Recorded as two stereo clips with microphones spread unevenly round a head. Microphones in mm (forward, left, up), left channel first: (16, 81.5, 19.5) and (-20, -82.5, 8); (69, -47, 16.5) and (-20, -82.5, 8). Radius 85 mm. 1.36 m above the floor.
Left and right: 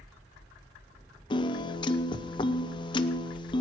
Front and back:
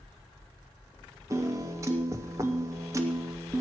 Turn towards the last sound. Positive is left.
turn(degrees=140)